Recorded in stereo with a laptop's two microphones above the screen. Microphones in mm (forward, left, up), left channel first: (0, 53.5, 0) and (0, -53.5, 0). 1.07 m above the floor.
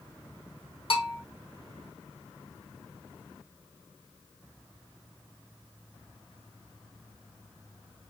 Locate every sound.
0.9 s a bell: 60° left (ahead or behind), 1.1 m